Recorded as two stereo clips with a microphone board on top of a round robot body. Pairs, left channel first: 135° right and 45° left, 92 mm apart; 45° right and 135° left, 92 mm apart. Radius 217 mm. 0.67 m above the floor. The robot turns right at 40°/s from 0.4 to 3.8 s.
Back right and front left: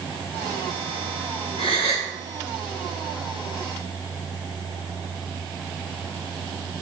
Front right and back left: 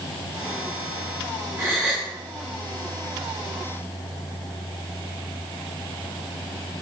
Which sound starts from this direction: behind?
A gasp, at 1.6 s.